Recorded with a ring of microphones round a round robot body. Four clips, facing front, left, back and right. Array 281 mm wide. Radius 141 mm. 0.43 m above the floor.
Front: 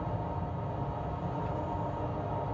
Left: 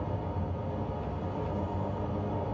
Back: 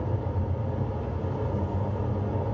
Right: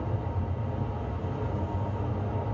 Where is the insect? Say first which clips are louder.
Right 1 dB, back 3 dB; 160° right, 3 m.